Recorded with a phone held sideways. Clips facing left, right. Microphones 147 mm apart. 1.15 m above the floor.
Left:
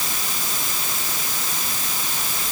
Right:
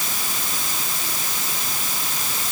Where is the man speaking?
I don't hear a man speaking.